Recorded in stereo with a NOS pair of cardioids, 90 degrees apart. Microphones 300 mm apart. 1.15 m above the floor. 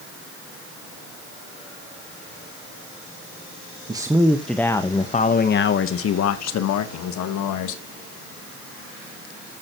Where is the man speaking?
15° right, 1.1 m; by 7.8 s 80° left, 1.7 m.